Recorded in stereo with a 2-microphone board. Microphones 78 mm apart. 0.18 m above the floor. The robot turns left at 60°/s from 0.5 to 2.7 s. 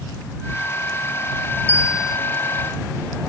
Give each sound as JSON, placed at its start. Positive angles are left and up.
{"t": 1.7, "sound": "a bell", "side_deg": 30}